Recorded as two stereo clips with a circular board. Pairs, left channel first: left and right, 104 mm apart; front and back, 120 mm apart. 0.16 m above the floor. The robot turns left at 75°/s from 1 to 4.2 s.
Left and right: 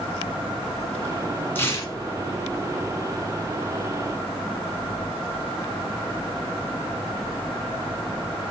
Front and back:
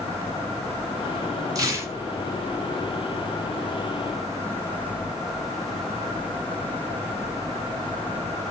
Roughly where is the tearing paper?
Behind left.